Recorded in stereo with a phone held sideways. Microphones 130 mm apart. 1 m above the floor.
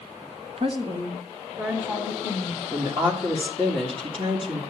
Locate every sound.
0.6 s a woman speaking: 50° right (ahead or behind), 0.7 m; by 2.6 s 25° right (ahead or behind), 3.5 m
2.7 s a woman speaking: 45° right (ahead or behind), 2 m